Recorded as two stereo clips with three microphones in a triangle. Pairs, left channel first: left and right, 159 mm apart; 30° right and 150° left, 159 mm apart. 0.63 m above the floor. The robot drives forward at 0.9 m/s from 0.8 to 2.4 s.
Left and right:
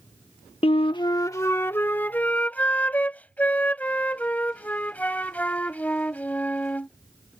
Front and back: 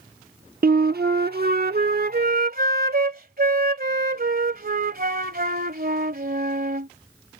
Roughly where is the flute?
Behind left.